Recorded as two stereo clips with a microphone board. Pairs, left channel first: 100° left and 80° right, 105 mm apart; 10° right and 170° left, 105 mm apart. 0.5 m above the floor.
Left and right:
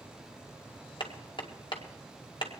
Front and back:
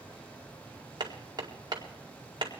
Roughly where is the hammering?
Behind left.